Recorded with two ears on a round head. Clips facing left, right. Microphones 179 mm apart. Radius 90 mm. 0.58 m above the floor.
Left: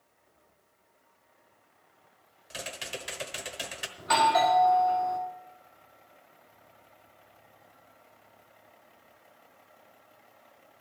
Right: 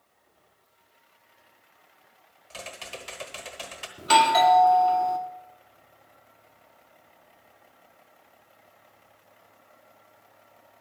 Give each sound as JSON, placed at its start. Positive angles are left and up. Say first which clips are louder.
{"t": 2.5, "sound": "typing on a keyboard", "louder": "left 1 dB", "side_deg": 15, "distance_m": 1.0}
{"t": 4.0, "sound": "a doorbell", "louder": "right 4 dB", "side_deg": -40, "distance_m": 1.4}